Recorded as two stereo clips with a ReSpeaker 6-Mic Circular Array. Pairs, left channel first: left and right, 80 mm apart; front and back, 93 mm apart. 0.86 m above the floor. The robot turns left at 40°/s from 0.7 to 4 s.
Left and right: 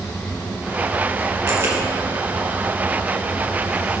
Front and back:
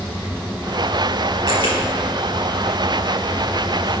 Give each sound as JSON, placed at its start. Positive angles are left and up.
{"t": 1.5, "sound": "a camera shutter", "azimuth_deg": -145, "distance_m": 4.5}